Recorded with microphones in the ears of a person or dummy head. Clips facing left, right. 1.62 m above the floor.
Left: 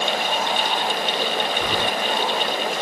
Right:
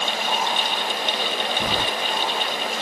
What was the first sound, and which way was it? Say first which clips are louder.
Keys jangling: left 1 dB; 20° right (ahead or behind).